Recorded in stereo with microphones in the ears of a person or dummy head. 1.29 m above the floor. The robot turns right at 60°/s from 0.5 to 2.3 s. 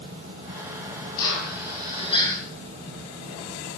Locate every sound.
1.2 s a drill: 95° left, 7 m; by 2.4 s 160° left, 7 m